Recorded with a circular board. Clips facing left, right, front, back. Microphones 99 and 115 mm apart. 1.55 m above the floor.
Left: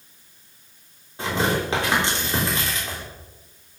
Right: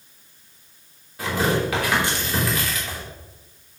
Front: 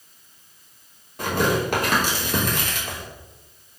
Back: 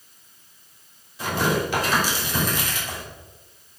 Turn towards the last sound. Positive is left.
turn(degrees=30)